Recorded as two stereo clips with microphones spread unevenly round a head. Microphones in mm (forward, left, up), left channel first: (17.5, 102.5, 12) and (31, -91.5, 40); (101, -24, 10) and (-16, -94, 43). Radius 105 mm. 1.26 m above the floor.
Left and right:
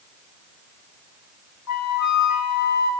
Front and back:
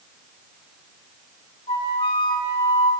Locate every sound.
1.7 s a flute: 100° left, 1.0 m